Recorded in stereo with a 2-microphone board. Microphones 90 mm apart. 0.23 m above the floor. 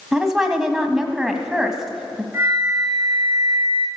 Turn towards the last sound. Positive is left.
turn(degrees=-25)  # may be behind; listen again after turning